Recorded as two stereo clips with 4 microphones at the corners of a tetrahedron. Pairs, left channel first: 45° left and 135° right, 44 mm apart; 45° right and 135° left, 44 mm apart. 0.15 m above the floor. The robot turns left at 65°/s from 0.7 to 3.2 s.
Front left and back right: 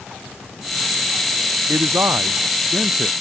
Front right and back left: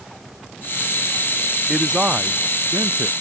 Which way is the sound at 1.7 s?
130° right.